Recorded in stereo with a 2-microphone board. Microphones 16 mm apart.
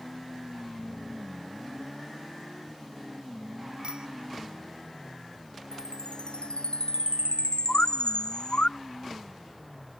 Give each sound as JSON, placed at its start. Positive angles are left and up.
{"t": 3.8, "sound": "a bicycle bell", "side_deg": -65}
{"t": 5.7, "sound": "a chime", "side_deg": 70}
{"t": 7.7, "sound": "a bird", "side_deg": 70}